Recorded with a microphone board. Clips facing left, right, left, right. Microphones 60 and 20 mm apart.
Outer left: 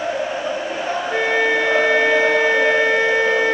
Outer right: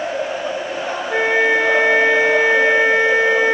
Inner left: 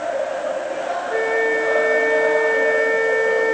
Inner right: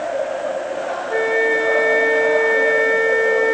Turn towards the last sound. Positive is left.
turn(degrees=-20)  # may be behind; listen again after turning